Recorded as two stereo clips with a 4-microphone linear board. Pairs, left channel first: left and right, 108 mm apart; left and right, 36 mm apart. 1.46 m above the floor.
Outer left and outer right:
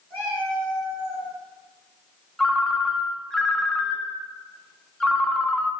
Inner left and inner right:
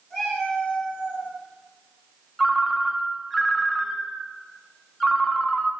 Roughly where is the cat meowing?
Centre.